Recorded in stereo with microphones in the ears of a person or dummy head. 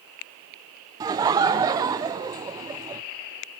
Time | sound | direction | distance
1.0 | laughter | 20° right (ahead or behind) | 0.5 m